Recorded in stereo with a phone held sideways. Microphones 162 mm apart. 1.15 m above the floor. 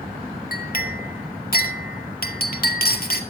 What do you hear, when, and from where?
0.5 s a clink: 65° left (ahead or behind), 2 m